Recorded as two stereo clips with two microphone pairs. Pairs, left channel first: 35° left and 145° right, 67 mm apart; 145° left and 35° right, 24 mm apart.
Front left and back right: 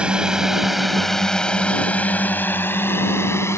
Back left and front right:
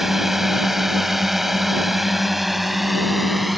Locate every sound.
0.0 s a drone: 95° right; by 3.6 s 55° left